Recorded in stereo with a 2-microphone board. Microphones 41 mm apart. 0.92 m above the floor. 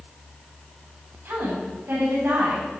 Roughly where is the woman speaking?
Right.